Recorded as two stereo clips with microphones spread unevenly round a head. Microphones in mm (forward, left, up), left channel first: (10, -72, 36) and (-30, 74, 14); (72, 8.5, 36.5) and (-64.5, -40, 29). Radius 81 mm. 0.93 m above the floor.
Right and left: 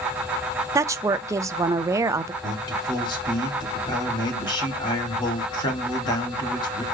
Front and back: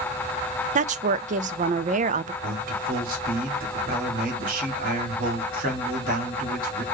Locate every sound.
0.8 s a woman speaking: 170° left, 0.5 m
2.4 s a man speaking: 140° right, 2.5 m